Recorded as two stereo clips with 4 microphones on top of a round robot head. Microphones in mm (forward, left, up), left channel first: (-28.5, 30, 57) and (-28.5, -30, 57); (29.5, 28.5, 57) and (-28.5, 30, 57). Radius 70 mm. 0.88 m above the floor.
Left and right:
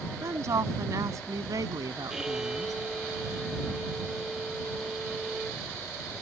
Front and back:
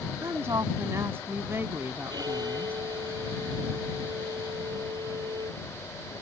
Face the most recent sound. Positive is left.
turn(degrees=-170)